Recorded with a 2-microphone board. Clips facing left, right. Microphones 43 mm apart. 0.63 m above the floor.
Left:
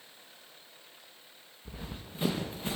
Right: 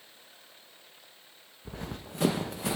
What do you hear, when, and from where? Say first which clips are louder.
1.6 s running footsteps: right 4 dB; 65° right (ahead or behind), 3 m; by 2.8 s 80° right, 3.5 m